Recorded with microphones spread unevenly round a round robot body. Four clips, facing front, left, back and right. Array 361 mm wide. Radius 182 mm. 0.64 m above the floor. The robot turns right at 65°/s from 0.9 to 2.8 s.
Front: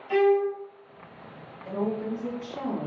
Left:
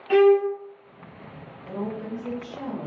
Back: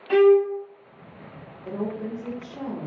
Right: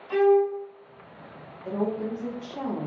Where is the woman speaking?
135° right, 0.9 m; by 2.9 s 60° right, 0.9 m.